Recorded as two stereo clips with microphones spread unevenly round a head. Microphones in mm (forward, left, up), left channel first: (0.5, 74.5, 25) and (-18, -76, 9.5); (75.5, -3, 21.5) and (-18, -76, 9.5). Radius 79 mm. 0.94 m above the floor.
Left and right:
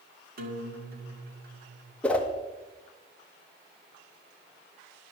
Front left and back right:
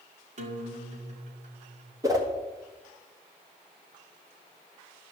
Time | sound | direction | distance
0.4 | a guitar | 120° right | 1.8 m
2.0 | a whoosh | 170° left | 1.3 m